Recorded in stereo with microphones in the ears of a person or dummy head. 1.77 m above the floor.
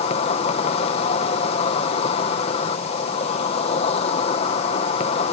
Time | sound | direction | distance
0.0 | an insect | 40° left (ahead or behind) | ?